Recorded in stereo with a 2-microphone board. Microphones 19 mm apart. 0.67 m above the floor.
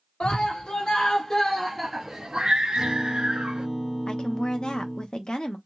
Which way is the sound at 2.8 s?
20° right (ahead or behind).